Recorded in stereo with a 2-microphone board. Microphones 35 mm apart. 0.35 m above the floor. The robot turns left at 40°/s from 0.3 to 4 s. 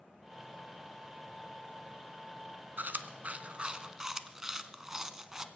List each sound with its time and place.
2.8 s chewing: 65° right (ahead or behind), 0.7 m; by 5.5 s 15° right (ahead or behind), 0.7 m